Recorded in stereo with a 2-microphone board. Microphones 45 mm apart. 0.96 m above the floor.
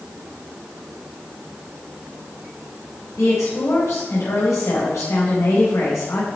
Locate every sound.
3.2 s a woman speaking: 85° left, 5.5 m